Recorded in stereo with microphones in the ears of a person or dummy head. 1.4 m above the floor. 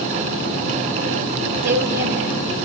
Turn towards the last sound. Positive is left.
turn(degrees=-65)  # may be behind; listen again after turning